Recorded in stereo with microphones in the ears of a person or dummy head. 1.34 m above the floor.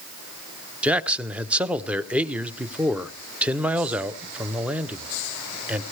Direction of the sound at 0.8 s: 5° right (ahead or behind).